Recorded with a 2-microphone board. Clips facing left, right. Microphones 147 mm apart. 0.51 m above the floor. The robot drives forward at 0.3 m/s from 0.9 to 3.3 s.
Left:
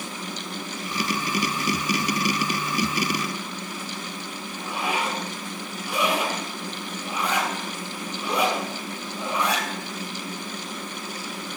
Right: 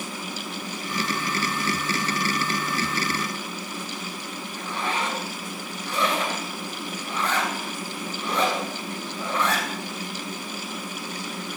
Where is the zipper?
10° left (ahead or behind), 2.5 m.